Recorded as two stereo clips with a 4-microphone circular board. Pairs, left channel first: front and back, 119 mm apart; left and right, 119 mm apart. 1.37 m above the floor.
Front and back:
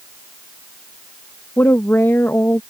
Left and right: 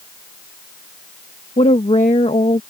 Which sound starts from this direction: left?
A woman speaking, at 1.6 s.